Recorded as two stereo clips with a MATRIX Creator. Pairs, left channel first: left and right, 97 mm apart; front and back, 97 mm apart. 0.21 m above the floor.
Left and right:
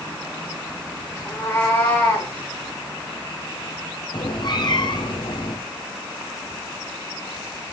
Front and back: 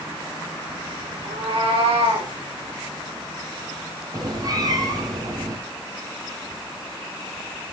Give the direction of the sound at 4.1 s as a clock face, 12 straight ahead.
8 o'clock.